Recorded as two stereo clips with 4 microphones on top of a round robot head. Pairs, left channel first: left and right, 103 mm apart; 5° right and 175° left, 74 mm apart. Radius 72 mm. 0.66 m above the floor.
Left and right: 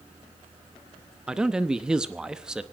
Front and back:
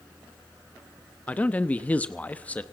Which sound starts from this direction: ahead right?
A man speaking, at 1.3 s.